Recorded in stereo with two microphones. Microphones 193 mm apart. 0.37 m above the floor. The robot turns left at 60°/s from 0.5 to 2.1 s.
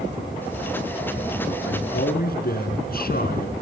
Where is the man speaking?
75° left (ahead or behind), 4 m; by 3.5 s 50° left (ahead or behind), 4 m.